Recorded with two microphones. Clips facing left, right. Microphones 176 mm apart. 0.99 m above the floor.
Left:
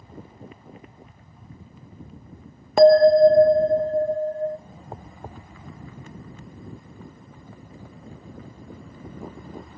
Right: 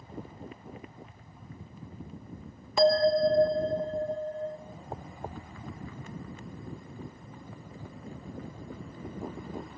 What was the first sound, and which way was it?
A bell, 60° left (ahead or behind).